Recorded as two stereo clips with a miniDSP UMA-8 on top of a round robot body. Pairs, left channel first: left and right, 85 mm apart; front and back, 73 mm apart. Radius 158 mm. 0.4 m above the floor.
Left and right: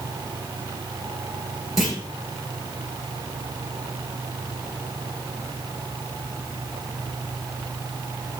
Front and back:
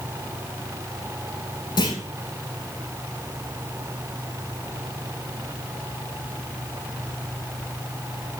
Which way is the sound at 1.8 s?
5° right.